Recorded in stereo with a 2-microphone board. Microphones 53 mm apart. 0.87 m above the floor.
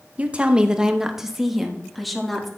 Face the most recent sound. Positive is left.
turn(degrees=0)  # may be behind; listen again after turning